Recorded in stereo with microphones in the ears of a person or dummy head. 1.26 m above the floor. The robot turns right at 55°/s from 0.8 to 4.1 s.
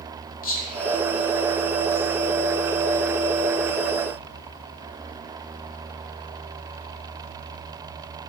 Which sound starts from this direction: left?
Whispering, at 0.4 s.